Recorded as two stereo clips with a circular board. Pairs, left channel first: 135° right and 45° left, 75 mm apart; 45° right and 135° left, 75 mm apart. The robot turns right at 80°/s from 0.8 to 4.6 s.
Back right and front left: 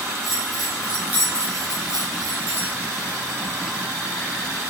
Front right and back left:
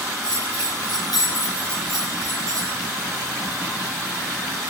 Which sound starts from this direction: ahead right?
A bell, at 0.2 s.